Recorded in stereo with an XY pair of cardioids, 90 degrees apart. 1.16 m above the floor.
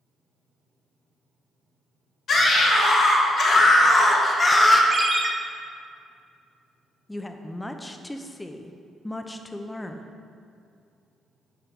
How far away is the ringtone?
About 0.6 m.